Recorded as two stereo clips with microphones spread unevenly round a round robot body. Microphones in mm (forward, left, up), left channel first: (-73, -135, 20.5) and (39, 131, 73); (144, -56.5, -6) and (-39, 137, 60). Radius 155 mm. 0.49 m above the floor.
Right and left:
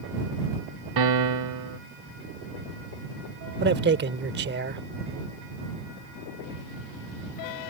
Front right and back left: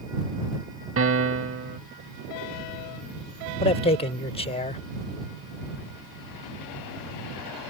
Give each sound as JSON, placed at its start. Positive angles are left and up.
{"t": 1.0, "sound": "a piano", "azimuth_deg": 90}
{"t": 3.6, "sound": "a man speaking", "azimuth_deg": 10}